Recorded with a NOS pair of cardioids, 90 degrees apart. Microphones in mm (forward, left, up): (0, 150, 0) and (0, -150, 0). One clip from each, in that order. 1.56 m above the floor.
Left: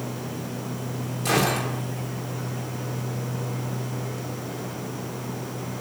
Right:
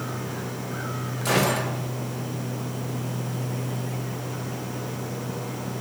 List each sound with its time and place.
1.2 s a gunshot: 5° left, 2.5 m